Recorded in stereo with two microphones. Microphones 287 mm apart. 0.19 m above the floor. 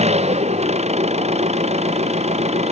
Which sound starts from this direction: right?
An engine running, at 0.0 s.